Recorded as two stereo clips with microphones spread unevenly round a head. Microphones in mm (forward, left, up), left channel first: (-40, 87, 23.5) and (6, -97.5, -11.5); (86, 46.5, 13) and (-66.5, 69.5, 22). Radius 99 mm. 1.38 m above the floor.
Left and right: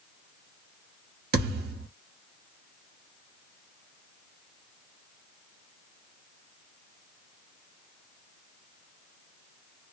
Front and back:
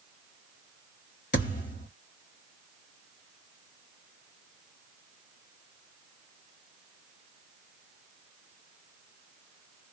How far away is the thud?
About 1.1 m.